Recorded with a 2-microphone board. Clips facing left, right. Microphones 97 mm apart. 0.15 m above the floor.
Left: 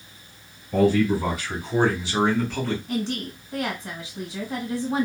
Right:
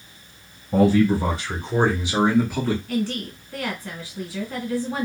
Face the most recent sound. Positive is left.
turn(degrees=20)  # may be behind; listen again after turning